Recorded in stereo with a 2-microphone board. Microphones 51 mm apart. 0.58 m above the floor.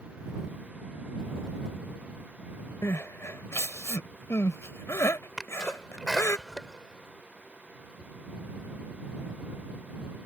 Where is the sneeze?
Centre (ahead or behind).